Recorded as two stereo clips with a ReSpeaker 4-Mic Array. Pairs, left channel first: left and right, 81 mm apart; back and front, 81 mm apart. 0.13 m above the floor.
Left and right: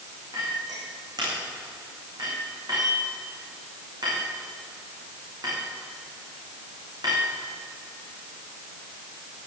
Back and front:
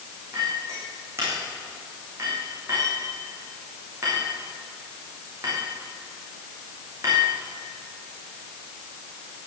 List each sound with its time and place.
0.3 s a clink: 55° right, 8 m